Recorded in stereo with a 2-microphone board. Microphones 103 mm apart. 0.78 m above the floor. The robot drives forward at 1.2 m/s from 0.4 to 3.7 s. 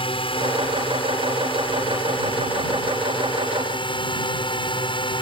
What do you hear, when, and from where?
0.0 s a drone: 60° left (ahead or behind); by 5.2 s 55° left (ahead or behind)